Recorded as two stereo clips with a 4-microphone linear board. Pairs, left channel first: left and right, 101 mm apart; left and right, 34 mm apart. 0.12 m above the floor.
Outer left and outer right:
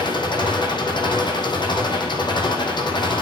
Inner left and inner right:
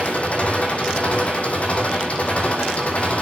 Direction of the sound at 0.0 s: 50° left (ahead or behind).